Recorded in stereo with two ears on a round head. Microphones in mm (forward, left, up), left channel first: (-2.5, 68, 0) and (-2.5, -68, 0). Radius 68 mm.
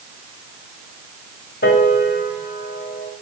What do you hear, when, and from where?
1.6 s a piano: 75° left (ahead or behind), 2.0 m